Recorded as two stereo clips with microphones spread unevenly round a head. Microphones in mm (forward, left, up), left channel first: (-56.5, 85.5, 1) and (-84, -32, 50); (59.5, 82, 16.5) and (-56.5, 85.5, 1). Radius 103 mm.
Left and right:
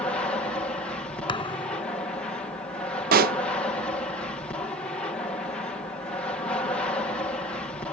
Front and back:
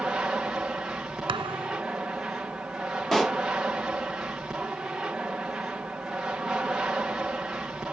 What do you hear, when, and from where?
0.0 s an aircraft: 105° left
1.3 s a thud: 135° left
3.1 s a pop: 90° right